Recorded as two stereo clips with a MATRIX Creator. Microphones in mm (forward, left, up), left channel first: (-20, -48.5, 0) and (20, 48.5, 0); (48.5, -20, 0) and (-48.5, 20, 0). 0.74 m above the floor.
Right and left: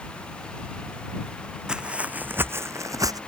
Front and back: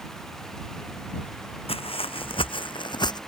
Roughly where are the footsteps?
Ahead.